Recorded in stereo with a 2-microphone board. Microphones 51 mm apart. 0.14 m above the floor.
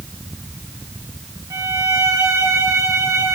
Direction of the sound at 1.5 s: 80° right.